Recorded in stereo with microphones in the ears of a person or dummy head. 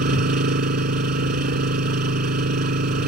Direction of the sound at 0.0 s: 60° right (ahead or behind).